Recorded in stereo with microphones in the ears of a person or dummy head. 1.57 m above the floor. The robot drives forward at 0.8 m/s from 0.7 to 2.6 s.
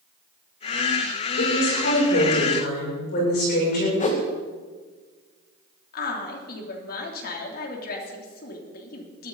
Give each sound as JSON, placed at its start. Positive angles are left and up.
{"t": 1.4, "sound": "a woman speaking", "side_deg": 65, "distance_m": 6.5}
{"t": 4.0, "sound": "a whoosh", "side_deg": 35, "distance_m": 2.0}
{"t": 5.9, "sound": "a woman speaking", "side_deg": 60, "distance_m": 3.0}